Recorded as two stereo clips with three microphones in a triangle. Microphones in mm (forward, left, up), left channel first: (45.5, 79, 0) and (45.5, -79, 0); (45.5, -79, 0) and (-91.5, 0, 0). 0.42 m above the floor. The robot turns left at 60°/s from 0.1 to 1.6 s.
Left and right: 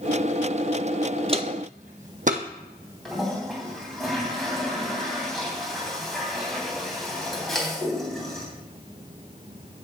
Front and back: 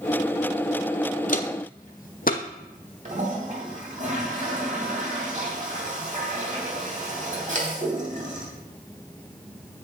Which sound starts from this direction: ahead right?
Footsteps, at 1.3 s.